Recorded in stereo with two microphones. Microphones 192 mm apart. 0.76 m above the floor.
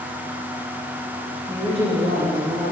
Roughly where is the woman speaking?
Centre.